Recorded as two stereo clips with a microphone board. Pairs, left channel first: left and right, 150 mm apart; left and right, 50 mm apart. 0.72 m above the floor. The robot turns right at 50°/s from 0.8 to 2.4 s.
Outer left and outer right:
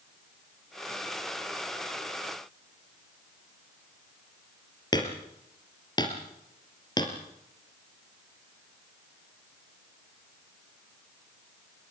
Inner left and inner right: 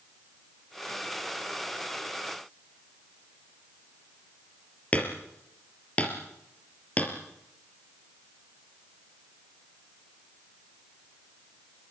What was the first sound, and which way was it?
Hammering, 30° left (ahead or behind).